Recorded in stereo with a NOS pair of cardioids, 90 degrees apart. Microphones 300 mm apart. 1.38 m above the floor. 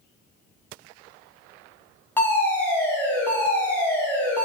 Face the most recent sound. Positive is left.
turn(degrees=5)